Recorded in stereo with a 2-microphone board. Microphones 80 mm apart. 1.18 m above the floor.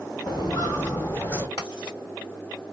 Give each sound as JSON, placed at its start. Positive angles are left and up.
{"t": 0.3, "sound": "footsteps", "side_deg": 50, "distance_m": 2.0}
{"t": 1.6, "sound": "writing", "side_deg": 65, "distance_m": 2.0}